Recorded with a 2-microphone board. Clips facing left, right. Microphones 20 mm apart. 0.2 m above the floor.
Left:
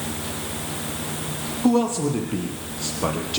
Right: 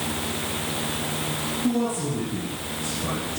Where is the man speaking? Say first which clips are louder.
Left 6 dB; 75° left (ahead or behind), 5.5 m.